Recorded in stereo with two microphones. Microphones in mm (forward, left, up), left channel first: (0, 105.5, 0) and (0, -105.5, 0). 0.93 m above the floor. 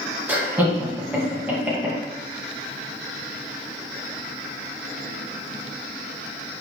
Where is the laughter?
10° right (ahead or behind), 1.0 m.